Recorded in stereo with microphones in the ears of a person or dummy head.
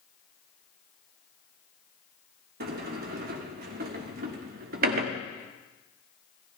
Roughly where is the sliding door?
Right.